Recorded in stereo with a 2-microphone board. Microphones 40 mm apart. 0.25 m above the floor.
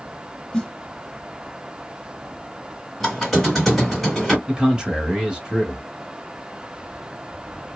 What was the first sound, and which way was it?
A snare drum, 20° left (ahead or behind).